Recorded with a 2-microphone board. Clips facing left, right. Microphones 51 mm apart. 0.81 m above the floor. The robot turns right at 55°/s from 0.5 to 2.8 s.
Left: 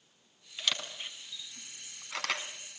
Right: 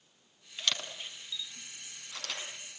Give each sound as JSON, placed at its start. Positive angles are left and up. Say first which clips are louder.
{"t": 0.6, "sound": "a camera shutter", "louder": "even", "side_deg": 0, "distance_m": 4.0}